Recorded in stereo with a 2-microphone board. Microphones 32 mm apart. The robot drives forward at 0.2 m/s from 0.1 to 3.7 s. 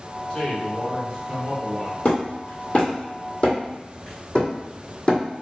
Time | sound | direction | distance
0.3 | a man speaking | 30° left (ahead or behind) | 1.3 m
2.0 | hammering | 45° left (ahead or behind) | 1.2 m